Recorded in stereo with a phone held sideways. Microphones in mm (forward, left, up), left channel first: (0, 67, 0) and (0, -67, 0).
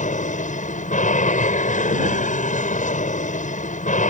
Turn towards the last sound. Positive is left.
turn(degrees=70)  # may be behind; listen again after turning